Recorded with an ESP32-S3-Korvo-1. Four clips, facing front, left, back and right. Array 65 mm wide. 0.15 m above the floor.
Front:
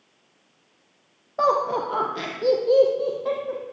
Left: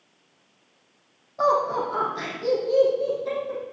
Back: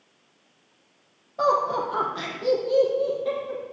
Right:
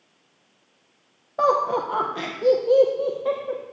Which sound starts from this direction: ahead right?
Laughter, at 1.4 s.